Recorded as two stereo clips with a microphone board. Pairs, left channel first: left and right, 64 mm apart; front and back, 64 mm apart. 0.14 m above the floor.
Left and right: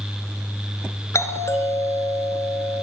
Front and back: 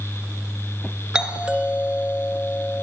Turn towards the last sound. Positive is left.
turn(degrees=110)